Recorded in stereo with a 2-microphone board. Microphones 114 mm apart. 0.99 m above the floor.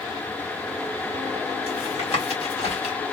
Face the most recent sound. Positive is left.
turn(degrees=65)  # may be behind; listen again after turning